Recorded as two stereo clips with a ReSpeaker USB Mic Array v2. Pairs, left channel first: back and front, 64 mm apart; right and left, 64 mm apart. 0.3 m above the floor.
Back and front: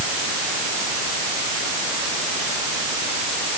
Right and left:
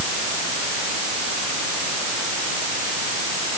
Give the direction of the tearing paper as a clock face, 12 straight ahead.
No tearing paper in this recording.